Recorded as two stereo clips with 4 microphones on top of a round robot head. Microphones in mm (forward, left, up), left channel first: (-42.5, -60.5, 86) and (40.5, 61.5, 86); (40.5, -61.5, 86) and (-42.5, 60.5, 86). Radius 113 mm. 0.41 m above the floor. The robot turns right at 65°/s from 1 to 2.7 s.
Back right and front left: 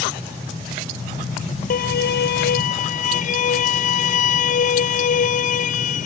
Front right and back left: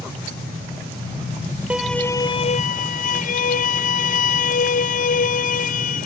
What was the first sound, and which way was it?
A violin, 155° right.